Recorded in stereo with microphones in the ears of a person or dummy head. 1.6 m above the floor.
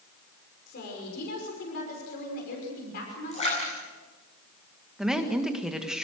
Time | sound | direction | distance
0.7 | a woman speaking | 55° left (ahead or behind) | 5.5 m
3.3 | a splash | 40° left (ahead or behind) | 9 m
5.0 | a woman speaking | centre (ahead or behind) | 1.7 m